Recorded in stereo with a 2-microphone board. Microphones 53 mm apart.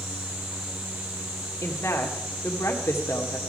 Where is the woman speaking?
60° left (ahead or behind), 1.8 m.